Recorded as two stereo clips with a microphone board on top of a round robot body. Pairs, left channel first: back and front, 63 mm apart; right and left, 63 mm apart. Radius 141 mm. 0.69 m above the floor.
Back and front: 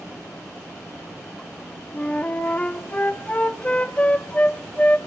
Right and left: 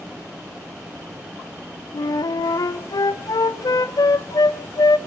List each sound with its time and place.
1.9 s a flute: 110° right, 0.7 m